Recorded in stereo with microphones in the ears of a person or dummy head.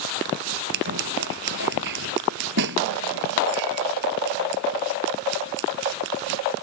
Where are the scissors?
60° right (ahead or behind).